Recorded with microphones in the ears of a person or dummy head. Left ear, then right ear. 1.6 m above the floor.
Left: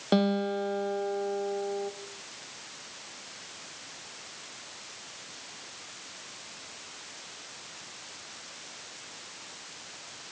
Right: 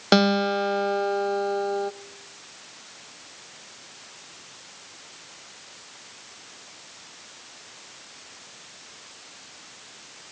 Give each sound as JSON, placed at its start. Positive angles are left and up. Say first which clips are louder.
{"t": 0.1, "sound": "a guitar", "louder": "right 7 dB", "side_deg": -55, "distance_m": 0.5}